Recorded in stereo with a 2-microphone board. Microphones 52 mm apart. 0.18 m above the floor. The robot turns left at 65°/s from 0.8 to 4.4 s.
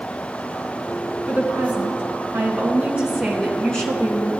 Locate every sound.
1.3 s a woman speaking: 45° right, 1.7 m; by 4.3 s 120° left, 1.7 m